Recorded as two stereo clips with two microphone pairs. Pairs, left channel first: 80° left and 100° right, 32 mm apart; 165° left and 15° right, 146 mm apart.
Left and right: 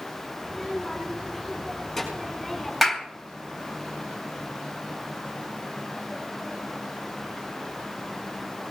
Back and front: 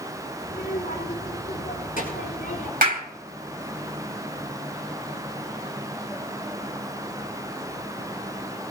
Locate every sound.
0.4 s a child speaking: 170° left, 8.5 m; by 2.7 s 165° left, 6.5 m
2.8 s a clap: 15° right, 3 m